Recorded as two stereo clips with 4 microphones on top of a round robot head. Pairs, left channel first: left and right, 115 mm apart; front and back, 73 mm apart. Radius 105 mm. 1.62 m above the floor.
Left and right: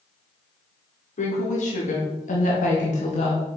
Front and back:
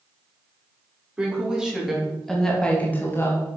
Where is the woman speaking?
105° left, 4 m; by 3.5 s 45° left, 2 m.